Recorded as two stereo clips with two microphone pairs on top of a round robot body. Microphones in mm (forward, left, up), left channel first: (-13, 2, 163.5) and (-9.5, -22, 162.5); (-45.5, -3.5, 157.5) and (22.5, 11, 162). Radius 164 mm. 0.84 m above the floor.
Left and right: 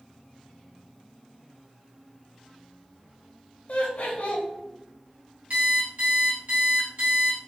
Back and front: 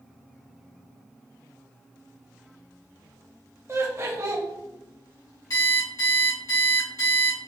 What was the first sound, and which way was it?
Laughter, 65° left.